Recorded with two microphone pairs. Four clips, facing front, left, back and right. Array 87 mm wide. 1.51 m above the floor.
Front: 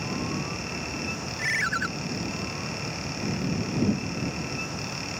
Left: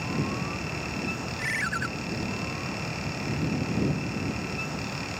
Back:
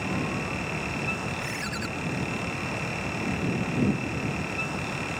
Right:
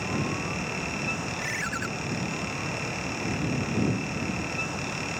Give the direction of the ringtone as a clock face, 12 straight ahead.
12 o'clock.